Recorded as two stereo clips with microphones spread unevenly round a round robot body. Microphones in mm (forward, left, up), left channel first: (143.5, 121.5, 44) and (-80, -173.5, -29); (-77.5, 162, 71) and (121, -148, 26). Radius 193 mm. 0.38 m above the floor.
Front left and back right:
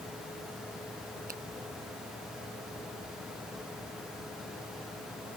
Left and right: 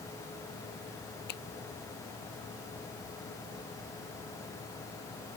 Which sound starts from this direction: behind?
A finger snap, at 1.3 s.